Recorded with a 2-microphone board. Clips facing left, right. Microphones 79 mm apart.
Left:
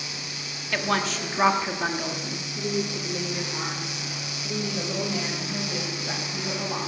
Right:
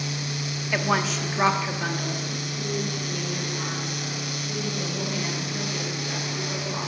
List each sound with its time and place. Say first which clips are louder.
0.7 s a woman speaking: right 1 dB; 15° right (ahead or behind), 1.0 m; by 6.8 s 40° left (ahead or behind), 4 m